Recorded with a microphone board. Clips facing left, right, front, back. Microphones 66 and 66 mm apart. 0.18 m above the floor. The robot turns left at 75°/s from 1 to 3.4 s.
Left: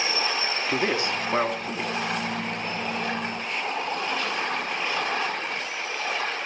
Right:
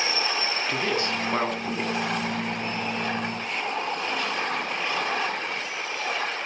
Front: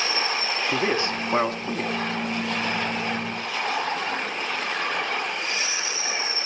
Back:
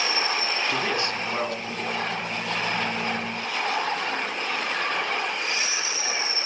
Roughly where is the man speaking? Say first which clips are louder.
Left 2 dB, front 5 dB; ahead left.